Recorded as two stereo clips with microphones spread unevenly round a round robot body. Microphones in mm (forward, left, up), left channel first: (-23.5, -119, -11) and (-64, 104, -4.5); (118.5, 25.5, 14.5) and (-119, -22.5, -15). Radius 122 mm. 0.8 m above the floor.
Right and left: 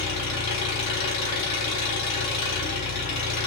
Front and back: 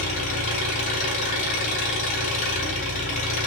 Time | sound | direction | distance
0.0 | an engine running | 50° right | 5.5 m